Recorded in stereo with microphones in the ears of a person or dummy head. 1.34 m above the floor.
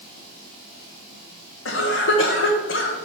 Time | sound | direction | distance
1.6 | a cough | 65° left (ahead or behind) | 1.5 m